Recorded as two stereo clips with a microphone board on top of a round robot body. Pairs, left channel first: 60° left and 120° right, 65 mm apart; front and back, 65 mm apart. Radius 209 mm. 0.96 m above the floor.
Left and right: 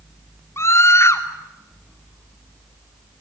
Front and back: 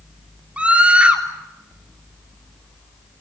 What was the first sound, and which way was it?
A scream, 105° left.